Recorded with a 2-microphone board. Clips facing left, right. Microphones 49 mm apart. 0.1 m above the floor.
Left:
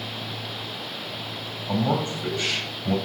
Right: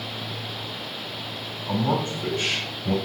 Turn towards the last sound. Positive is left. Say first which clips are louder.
# even
turn(degrees=-35)  # may be behind; listen again after turning